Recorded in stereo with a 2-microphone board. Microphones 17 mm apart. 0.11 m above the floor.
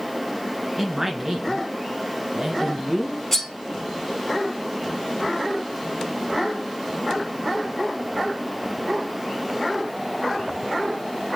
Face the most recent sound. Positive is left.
turn(degrees=5)  # may be behind; listen again after turning